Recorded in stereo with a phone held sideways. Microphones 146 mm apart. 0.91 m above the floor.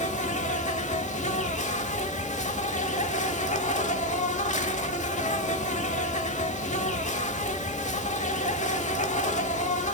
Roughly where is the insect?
Left.